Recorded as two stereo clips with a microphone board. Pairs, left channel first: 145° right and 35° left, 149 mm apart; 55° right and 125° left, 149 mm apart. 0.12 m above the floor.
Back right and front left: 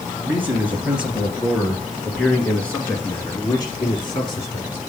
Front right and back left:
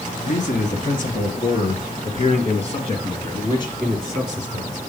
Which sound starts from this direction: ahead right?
A man speaking, at 0.2 s.